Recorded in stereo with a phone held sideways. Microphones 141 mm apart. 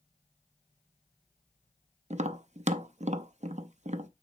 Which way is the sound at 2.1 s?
55° right (ahead or behind).